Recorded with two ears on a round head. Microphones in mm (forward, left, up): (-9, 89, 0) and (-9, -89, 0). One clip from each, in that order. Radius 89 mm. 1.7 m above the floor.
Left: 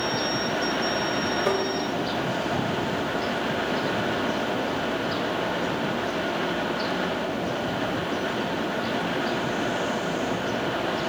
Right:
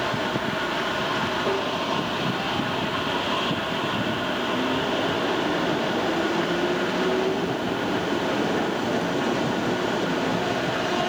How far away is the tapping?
About 2.0 m.